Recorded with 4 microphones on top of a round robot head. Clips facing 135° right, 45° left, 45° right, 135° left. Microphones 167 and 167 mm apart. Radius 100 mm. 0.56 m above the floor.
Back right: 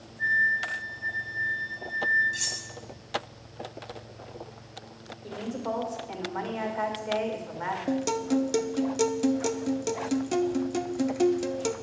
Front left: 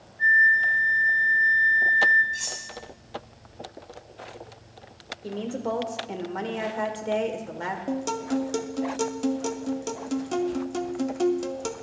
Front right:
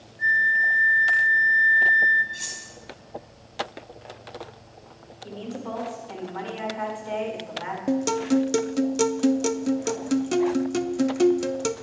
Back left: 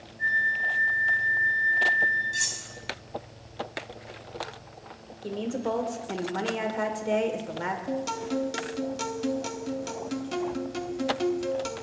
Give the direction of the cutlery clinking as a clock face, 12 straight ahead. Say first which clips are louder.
Front left 1 dB, back left 2 dB; 6 o'clock.